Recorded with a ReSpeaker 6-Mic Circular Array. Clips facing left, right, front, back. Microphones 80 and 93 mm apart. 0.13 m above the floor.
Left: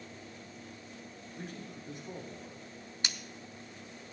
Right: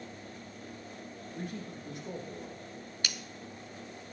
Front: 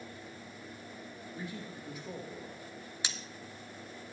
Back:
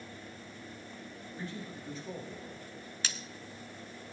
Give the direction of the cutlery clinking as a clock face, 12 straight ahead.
10 o'clock.